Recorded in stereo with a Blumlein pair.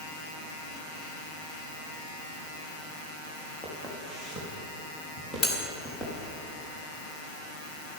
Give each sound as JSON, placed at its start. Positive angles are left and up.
{"t": 3.6, "sound": "footsteps", "azimuth_deg": 10, "distance_m": 5.0}
{"t": 5.4, "sound": "cutlery clinking", "azimuth_deg": 25, "distance_m": 2.5}